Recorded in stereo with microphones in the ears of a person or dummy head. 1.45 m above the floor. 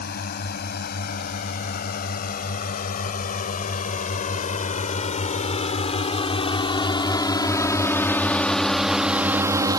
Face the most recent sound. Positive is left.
turn(degrees=-20)  # may be behind; listen again after turning